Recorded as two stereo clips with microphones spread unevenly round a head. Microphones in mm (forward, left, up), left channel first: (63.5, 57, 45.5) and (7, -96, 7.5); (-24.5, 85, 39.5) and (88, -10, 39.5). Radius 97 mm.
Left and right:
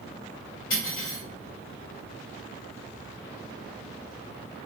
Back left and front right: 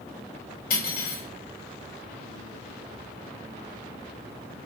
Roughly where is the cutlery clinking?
Behind left.